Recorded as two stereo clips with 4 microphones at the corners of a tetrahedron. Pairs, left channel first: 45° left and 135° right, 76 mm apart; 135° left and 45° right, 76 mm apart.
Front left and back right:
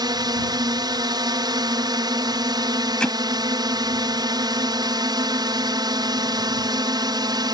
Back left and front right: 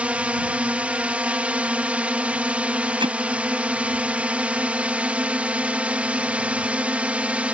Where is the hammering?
35° right.